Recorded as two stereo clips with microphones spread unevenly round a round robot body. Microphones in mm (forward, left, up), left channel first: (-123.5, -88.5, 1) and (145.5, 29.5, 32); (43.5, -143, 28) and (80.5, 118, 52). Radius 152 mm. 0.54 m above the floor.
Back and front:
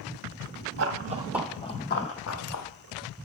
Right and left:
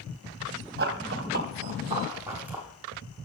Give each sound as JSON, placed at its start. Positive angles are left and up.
{"t": 0.8, "sound": "running footsteps", "azimuth_deg": 50, "distance_m": 0.8}